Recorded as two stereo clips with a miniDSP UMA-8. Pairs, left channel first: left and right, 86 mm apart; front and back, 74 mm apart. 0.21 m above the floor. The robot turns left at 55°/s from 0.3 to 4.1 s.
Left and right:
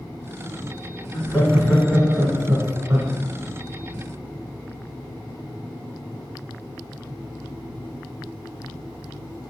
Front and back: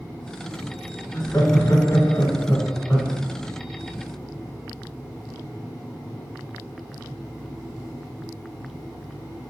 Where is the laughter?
Straight ahead, 1.2 m; by 3.1 s 110° right, 1.2 m.